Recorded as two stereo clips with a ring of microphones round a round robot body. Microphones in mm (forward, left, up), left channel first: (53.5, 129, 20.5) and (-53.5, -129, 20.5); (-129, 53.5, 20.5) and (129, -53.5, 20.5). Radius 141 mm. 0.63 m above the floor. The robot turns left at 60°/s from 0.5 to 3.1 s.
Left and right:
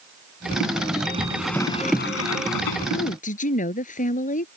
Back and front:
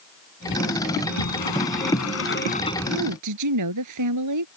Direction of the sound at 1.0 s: 175° right.